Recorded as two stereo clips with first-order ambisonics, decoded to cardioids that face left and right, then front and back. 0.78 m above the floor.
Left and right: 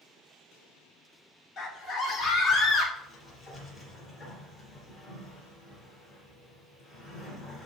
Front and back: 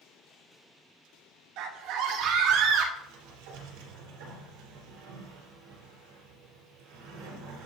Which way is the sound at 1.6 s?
150° left.